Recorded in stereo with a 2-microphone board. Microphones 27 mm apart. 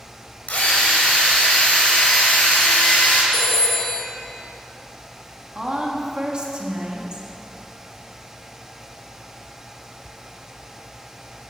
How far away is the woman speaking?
About 1.7 m.